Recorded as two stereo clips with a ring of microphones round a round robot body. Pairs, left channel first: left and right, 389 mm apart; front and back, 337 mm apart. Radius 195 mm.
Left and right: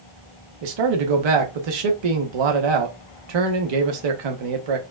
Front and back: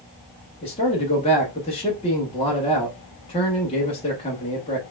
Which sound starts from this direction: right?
A man speaking, at 0.6 s.